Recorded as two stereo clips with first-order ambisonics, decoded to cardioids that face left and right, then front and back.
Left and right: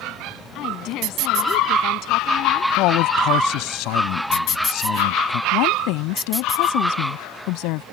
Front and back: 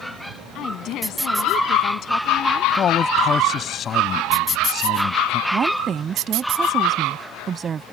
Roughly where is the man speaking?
Ahead left.